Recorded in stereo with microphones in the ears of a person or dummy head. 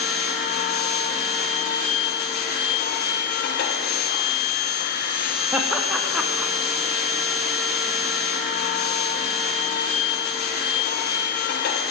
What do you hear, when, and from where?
0.0 s a machine running: 50° left (ahead or behind), 0.9 m
5.5 s laughter: 5° right (ahead or behind), 0.5 m